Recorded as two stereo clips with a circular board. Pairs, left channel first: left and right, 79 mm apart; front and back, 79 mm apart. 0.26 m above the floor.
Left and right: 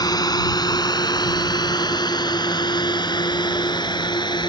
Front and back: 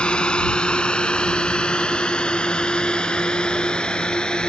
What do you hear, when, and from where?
0.0 s a drone: 75° left; by 4.5 s 80° left